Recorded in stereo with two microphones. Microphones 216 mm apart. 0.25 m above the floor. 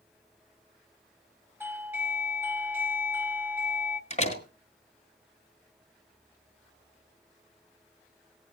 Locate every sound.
1.6 s a doorbell: 10° right (ahead or behind), 1.6 m
4.1 s a door slam: 30° left (ahead or behind), 2 m